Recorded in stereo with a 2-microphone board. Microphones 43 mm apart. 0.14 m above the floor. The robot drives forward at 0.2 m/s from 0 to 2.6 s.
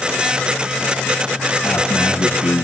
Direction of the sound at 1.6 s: 80° left.